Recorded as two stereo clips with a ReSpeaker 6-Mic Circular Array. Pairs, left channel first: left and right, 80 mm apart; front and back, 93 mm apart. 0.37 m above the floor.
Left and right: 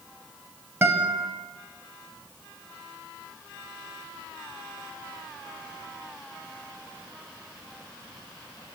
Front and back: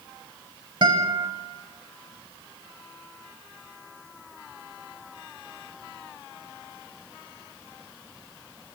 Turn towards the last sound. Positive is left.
turn(degrees=-150)